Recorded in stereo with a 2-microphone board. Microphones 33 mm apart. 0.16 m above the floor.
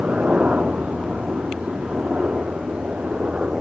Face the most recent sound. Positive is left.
turn(degrees=-45)  # may be behind; listen again after turning